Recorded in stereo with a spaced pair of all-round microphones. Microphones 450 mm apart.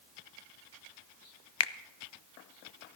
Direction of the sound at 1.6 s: 60° left (ahead or behind).